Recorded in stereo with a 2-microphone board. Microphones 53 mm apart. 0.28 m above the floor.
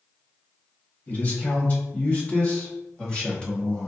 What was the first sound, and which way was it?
A man speaking, 40° left (ahead or behind).